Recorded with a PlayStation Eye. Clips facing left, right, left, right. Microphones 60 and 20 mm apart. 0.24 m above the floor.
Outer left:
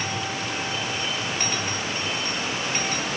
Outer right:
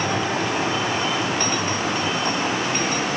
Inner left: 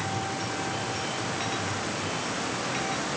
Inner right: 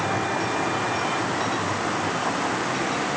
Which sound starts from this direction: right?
A vehicle, at 0.0 s.